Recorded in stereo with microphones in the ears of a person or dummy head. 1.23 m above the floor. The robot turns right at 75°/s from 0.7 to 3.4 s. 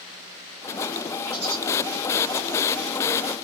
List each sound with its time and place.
1.3 s a bird: 15° right (ahead or behind), 1.0 m; by 1.6 s 40° right (ahead or behind), 1.0 m